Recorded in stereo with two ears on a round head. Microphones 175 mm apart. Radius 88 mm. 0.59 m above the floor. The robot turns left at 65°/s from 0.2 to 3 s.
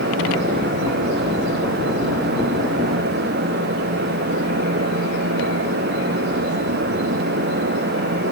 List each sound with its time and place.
Only background noise.